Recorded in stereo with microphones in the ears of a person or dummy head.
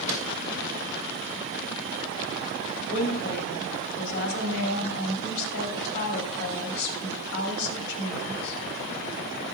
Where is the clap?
35° right (ahead or behind), 4 m.